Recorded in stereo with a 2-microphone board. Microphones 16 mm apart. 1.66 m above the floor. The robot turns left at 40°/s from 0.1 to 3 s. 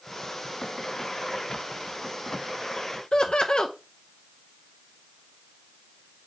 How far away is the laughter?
About 0.7 m.